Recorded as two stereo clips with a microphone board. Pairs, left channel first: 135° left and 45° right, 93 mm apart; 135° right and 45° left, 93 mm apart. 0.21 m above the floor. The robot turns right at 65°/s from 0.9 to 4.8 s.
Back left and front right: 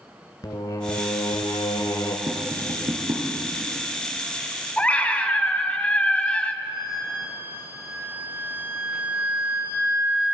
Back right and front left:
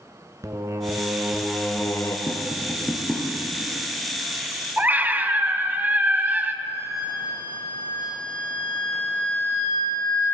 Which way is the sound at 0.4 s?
95° left.